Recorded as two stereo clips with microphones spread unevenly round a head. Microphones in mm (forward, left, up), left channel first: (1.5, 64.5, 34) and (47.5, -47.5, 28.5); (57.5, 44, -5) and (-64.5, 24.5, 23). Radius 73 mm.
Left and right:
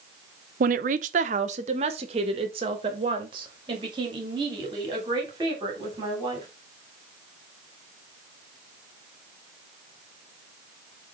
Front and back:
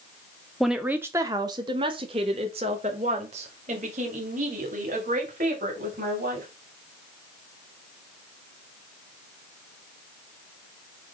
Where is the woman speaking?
80° right, 0.6 m; by 6.5 s 130° right, 3.5 m.